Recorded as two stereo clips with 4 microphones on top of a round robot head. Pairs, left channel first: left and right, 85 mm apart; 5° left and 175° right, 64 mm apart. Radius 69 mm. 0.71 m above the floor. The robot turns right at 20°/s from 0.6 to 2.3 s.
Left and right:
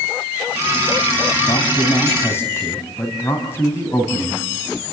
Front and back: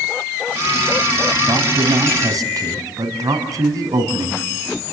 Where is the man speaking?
140° left, 4.5 m; by 4.8 s 155° left, 4.5 m.